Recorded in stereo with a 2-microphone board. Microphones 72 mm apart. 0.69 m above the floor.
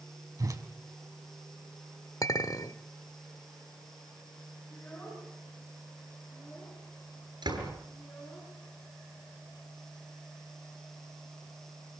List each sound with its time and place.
0.4 s a whoosh: 50° right (ahead or behind), 3 m
2.2 s a clink: 50° left (ahead or behind), 1.7 m
4.7 s a child speaking: 20° left (ahead or behind), 9 m
7.4 s a door slam: 80° right, 9 m